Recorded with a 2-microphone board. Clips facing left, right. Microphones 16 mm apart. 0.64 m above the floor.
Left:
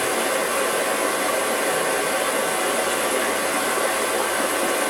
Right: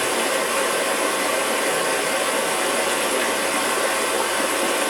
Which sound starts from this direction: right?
Running water, at 0.0 s.